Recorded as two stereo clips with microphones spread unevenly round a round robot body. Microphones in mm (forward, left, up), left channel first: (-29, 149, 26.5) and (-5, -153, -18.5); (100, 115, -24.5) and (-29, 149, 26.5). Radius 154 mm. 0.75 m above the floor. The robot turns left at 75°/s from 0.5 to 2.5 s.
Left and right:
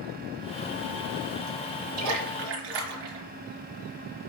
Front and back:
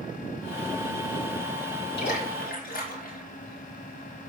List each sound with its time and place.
2.0 s a splash: 40° right, 3.5 m; by 3.3 s 80° right, 3.5 m